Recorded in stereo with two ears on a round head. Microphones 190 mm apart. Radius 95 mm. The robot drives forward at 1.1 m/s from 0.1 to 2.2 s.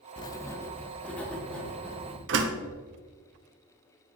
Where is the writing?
25° left (ahead or behind), 0.5 m; by 2.2 s 5° left (ahead or behind), 2.5 m.